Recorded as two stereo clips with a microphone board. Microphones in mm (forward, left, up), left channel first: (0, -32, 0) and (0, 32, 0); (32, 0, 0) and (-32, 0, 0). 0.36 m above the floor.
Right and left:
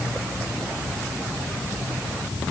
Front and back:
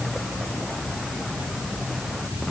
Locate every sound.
Only background noise.